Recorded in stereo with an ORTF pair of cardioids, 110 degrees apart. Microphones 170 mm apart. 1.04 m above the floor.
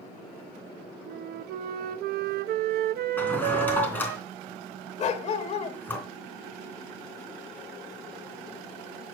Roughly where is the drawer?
Ahead.